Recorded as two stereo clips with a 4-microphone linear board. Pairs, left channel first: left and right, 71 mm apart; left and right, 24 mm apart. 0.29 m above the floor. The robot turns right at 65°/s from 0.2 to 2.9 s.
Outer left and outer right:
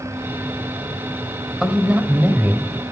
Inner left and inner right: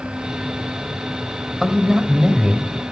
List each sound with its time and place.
1.6 s a man speaking: 5° right (ahead or behind), 1.3 m; by 2.7 s 25° right (ahead or behind), 1.3 m